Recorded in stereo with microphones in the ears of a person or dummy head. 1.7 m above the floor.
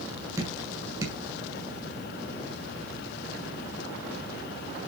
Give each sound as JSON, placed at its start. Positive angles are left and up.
{"t": 0.4, "sound": "dripping", "side_deg": -15, "distance_m": 7.0}